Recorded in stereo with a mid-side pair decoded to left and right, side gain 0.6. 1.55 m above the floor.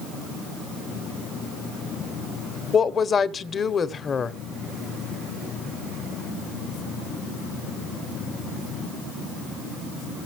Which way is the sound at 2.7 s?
35° left.